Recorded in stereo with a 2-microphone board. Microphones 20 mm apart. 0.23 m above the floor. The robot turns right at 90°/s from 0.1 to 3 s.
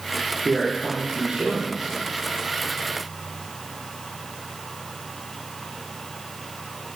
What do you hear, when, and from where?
0.5 s a man speaking: 170° right, 8 m; by 1.9 s 35° right, 8 m